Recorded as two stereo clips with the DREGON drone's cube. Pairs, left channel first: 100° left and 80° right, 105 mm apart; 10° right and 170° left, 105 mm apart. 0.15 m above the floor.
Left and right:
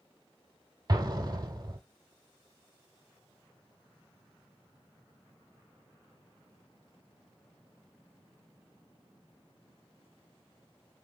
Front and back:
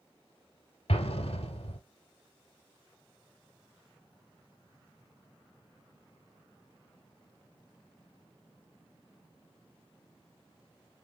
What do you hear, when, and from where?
0.9 s an explosion: 25° right, 0.7 m